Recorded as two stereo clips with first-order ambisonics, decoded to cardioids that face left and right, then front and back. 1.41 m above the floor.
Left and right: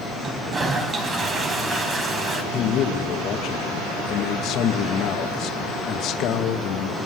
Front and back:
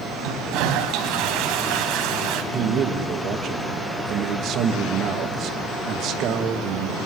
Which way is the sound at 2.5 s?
135° left.